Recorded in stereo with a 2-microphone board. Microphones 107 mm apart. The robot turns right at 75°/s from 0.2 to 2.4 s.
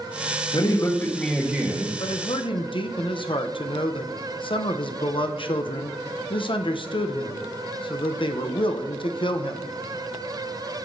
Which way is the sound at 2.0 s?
55° left (ahead or behind).